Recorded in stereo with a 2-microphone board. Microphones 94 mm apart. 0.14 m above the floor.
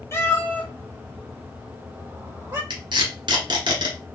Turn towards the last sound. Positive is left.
turn(degrees=-60)  # may be behind; listen again after turning